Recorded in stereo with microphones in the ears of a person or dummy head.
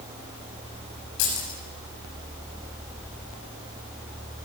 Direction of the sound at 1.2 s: 80° left.